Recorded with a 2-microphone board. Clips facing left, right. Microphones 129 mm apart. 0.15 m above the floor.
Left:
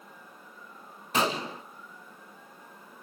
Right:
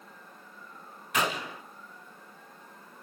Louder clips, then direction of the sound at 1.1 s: Left 2 dB; 30° left (ahead or behind).